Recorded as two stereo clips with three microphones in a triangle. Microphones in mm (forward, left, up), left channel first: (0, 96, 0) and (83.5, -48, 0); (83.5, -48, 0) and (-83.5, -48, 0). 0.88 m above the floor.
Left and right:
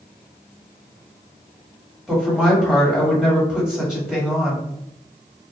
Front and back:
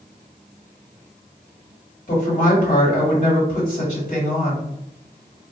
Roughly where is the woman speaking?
Ahead left.